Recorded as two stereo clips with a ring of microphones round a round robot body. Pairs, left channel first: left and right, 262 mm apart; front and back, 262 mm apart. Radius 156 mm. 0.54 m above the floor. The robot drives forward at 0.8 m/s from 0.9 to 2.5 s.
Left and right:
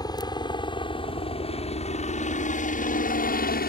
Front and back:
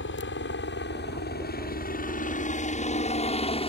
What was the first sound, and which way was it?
A helicopter, 20° left.